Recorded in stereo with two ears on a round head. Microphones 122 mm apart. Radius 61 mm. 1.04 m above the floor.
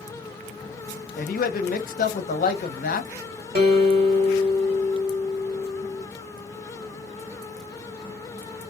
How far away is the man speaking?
About 0.7 m.